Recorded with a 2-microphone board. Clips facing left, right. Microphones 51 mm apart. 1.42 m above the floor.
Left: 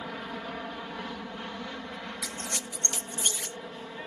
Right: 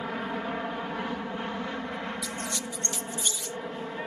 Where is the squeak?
50° left (ahead or behind).